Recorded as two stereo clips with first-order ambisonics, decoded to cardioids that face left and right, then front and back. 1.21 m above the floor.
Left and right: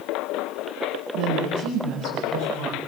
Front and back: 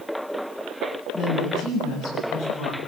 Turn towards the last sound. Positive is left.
turn(degrees=-55)